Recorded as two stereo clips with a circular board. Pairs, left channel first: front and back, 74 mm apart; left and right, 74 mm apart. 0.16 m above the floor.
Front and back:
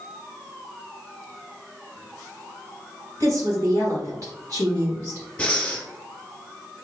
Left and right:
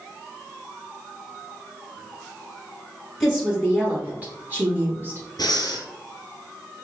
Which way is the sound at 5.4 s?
75° left.